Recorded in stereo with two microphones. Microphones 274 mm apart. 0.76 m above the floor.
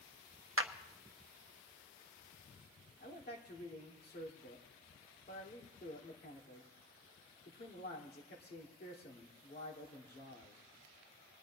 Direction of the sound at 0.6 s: 50° right (ahead or behind).